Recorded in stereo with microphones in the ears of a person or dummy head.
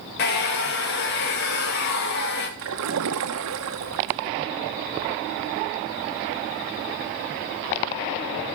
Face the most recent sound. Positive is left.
turn(degrees=-75)  # may be behind; listen again after turning